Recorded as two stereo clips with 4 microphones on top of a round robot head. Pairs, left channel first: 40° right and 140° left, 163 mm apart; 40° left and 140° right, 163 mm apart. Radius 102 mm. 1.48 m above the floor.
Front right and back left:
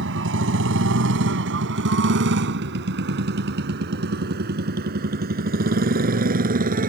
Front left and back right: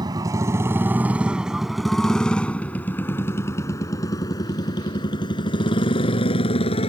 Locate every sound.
0.0 s a motorcycle: 150° left; by 6.9 s 100° left